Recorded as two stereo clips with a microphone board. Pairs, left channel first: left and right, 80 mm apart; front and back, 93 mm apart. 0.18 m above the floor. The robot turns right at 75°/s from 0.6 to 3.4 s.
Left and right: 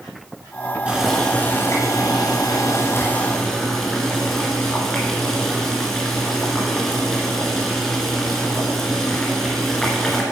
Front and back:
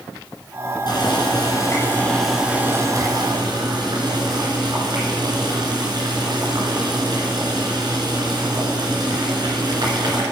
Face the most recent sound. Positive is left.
turn(degrees=175)